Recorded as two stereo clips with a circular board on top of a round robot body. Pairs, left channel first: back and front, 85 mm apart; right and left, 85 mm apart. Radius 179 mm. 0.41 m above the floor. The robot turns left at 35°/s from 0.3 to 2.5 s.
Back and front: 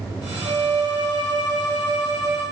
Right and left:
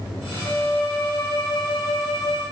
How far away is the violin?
About 5.5 m.